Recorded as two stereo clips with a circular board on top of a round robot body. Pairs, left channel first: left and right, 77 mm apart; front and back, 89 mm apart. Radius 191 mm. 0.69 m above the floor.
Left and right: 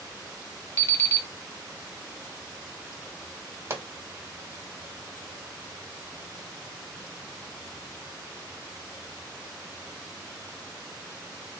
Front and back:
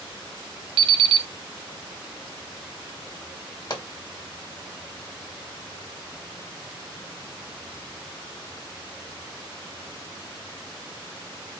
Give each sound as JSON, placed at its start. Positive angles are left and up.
{"t": 0.8, "sound": "an alarm clock", "azimuth_deg": 150, "distance_m": 1.1}
{"t": 3.7, "sound": "a pop", "azimuth_deg": -35, "distance_m": 2.0}